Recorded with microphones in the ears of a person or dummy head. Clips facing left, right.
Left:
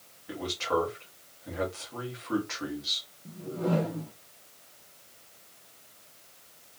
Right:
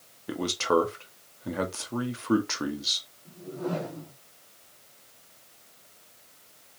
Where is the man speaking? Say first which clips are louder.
Right 5 dB; 60° right (ahead or behind), 0.7 m.